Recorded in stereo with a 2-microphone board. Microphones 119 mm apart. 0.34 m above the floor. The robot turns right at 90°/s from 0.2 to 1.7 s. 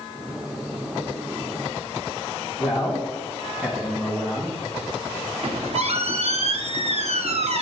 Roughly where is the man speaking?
Centre.